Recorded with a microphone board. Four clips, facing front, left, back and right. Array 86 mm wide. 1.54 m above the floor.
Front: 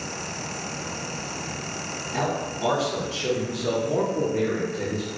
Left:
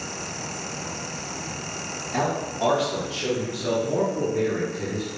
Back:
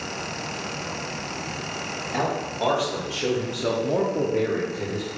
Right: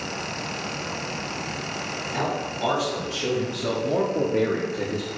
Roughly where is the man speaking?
Behind left.